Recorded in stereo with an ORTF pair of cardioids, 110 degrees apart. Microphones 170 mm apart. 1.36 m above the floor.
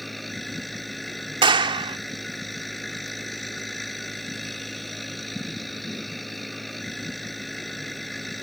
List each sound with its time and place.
0.0 s a machine running: straight ahead
1.4 s a clap: 30° right